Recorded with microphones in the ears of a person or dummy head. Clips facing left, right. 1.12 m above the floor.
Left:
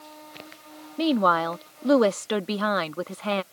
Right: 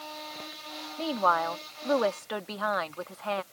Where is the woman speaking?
45° left (ahead or behind).